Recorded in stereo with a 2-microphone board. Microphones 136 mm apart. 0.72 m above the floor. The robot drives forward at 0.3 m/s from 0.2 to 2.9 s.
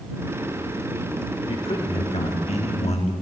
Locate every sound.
1.5 s a man speaking: 45° left (ahead or behind), 1.6 m; by 3.1 s 55° left (ahead or behind), 1.4 m